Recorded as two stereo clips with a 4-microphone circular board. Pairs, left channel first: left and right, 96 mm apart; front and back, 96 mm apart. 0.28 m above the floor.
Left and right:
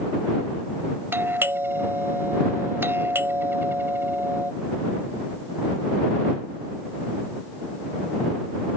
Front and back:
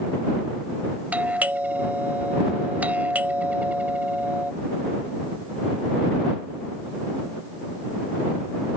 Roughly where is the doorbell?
Behind right.